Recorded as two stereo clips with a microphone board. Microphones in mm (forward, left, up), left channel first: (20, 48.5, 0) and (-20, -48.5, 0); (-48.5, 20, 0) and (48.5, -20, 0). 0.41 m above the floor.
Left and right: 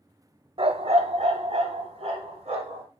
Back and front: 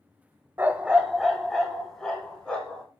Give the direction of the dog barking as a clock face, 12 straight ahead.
3 o'clock.